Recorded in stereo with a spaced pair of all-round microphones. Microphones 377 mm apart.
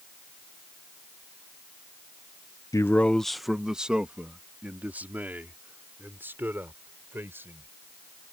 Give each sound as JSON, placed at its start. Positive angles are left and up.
{"t": 2.7, "sound": "a man speaking", "side_deg": 10}